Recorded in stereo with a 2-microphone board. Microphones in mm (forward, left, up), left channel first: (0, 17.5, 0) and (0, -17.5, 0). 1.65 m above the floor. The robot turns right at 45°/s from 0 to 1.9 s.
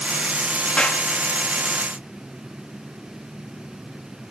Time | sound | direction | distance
0.8 | a clap | 35° left (ahead or behind) | ?